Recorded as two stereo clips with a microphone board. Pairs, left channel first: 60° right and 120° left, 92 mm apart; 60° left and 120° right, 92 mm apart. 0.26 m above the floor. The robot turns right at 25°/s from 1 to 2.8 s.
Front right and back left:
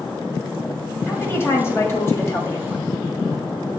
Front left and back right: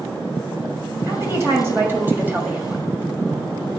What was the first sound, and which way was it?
A woman speaking, 100° right.